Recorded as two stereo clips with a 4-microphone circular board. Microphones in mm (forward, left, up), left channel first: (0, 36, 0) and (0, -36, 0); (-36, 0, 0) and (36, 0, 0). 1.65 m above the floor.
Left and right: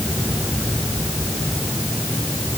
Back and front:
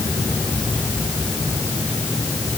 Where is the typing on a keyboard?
No typing on a keyboard in this recording.